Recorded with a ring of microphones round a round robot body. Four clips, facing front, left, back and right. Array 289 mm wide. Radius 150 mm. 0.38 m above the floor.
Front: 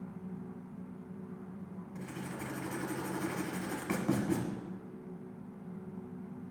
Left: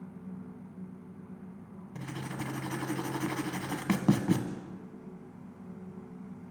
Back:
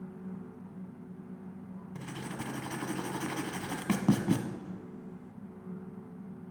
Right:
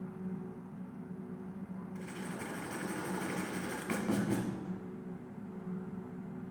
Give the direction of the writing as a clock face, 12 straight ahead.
8 o'clock.